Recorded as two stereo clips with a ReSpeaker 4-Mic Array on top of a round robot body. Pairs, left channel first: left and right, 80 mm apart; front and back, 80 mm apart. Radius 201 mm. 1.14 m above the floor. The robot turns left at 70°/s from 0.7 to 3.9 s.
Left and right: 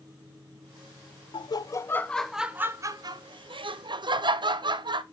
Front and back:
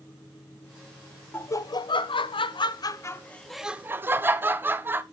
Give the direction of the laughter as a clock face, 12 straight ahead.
10 o'clock.